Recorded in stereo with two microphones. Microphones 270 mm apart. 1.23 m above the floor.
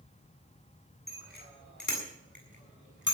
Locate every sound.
1.1 s a bicycle bell: 35° left (ahead or behind), 7.5 m; by 3.1 s 45° left (ahead or behind), 7 m